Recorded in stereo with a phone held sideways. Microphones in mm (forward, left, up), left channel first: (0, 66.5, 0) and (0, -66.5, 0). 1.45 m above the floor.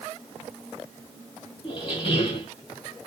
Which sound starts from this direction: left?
A squeak, at 1.6 s.